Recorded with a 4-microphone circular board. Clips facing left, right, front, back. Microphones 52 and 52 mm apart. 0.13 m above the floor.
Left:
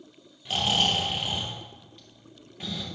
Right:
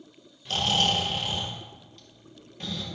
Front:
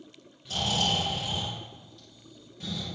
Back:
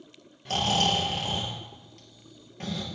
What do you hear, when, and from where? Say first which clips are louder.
0.5 s snoring: even, back 3 dB; 165° left, 3 m